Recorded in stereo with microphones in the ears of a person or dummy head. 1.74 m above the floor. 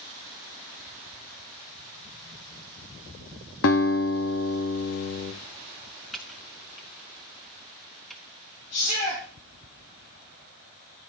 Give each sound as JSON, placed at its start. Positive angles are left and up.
{"t": 3.6, "sound": "a guitar", "side_deg": 65, "distance_m": 0.8}
{"t": 6.1, "sound": "typing on a keyboard", "side_deg": 0, "distance_m": 1.0}
{"t": 8.7, "sound": "a shout", "side_deg": 50, "distance_m": 3.0}